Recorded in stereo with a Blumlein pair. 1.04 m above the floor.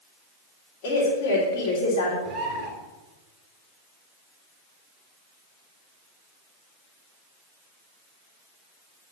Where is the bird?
35° right, 3 m.